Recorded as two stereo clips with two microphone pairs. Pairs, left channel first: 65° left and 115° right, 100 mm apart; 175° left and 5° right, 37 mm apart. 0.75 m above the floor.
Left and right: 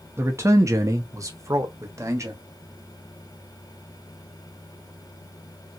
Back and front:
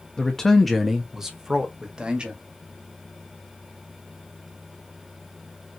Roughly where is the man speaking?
Behind right.